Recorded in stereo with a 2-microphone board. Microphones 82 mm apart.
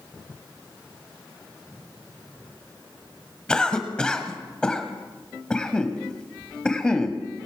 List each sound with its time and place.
3.5 s a cough: 10° left (ahead or behind), 1.2 m